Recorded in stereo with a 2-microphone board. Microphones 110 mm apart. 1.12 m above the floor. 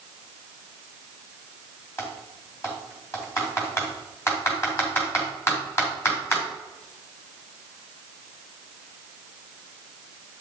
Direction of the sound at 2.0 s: 25° left (ahead or behind).